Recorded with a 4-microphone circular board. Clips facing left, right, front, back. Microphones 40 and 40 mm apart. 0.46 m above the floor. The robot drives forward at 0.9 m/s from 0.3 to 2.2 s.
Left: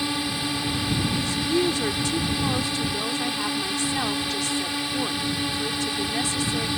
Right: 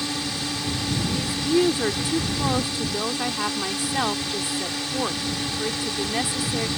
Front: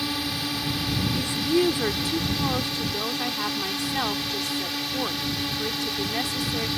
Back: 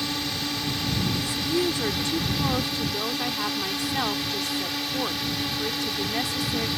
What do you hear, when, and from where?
0.0 s a drone: 70° left; by 6.8 s 85° left
1.1 s a woman speaking: 25° right; by 6.7 s 85° right